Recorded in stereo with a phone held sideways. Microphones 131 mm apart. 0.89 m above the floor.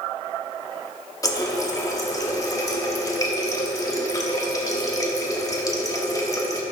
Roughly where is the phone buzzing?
No phone buzzing in this recording.